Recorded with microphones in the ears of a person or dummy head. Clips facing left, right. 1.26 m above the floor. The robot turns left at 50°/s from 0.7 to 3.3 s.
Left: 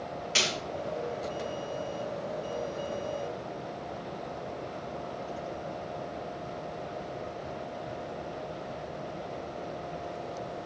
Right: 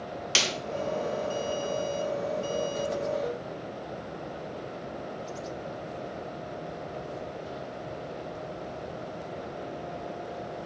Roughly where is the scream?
I don't hear a scream.